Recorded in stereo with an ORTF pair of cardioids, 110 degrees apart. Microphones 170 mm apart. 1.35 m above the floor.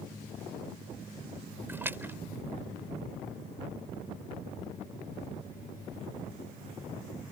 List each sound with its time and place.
1.7 s a splash: 10° right